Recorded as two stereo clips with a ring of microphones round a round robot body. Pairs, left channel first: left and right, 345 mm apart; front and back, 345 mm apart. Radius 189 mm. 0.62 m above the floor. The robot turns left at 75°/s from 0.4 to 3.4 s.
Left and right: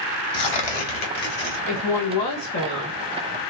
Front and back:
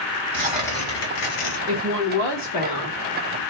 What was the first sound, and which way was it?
Tearing paper, 105° left.